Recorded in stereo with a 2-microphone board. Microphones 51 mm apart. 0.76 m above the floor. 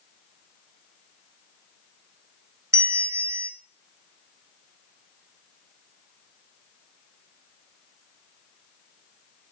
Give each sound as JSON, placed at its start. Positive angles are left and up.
{"t": 2.7, "sound": "a bell", "side_deg": -65, "distance_m": 0.9}